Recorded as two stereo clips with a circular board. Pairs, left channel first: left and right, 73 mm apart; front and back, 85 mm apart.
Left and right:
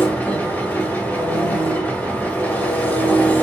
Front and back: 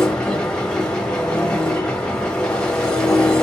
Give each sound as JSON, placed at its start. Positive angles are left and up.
{"t": 0.0, "sound": "an engine running", "azimuth_deg": 65, "distance_m": 1.0}